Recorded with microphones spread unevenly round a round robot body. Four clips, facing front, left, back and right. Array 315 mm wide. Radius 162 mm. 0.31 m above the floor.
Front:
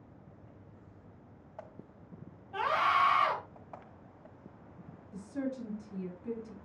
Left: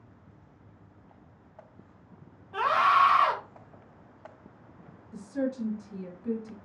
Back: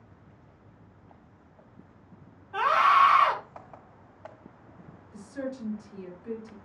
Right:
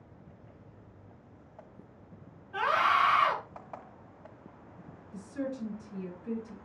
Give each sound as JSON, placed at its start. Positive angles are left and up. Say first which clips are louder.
{"t": 2.5, "sound": "a scream", "louder": "left 4 dB, back 7 dB", "azimuth_deg": 85, "distance_m": 2.5}
{"t": 5.1, "sound": "a woman speaking", "louder": "left 5 dB, back 1 dB", "azimuth_deg": 75, "distance_m": 2.5}